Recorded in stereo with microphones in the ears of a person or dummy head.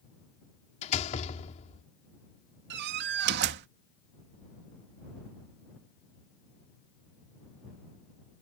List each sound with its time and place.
0.8 s a door slam: 45° left (ahead or behind)
2.7 s a door slam: 60° right (ahead or behind)